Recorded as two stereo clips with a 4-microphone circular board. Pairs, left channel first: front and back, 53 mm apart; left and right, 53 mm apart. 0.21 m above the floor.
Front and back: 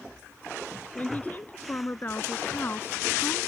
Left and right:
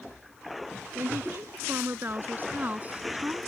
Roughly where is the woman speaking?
Ahead right.